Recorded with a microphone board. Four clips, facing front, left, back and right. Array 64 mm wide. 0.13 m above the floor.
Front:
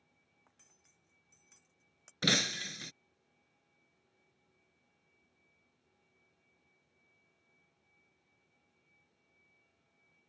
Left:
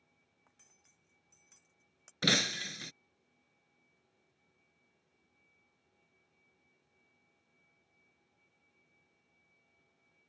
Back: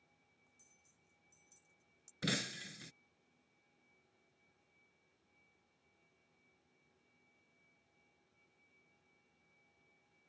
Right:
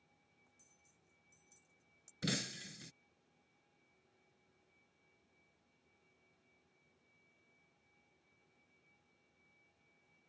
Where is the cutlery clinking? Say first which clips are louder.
Left 2 dB, front 2 dB; 40° left.